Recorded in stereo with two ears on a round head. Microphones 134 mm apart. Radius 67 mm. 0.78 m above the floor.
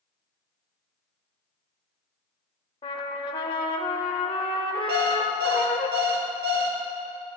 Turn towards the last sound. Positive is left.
turn(degrees=-75)  # may be behind; listen again after turning